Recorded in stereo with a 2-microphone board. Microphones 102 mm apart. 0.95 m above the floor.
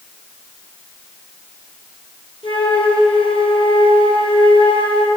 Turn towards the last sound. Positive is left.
turn(degrees=60)  # may be behind; listen again after turning